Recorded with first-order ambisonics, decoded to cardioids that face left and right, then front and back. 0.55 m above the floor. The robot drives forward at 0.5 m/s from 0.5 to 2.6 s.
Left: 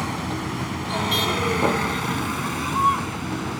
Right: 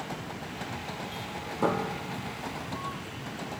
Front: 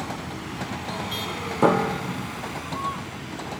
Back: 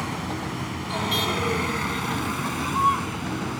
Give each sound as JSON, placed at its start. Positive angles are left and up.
{"t": 0.0, "sound": "a vehicle", "azimuth_deg": 110}
{"t": 1.6, "sound": "a piano", "azimuth_deg": 15}